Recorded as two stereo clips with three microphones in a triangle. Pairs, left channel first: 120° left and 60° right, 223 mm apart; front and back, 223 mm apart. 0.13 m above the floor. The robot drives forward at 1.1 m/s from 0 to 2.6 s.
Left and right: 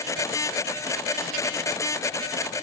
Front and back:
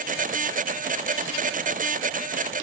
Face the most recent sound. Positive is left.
No sound to turn to.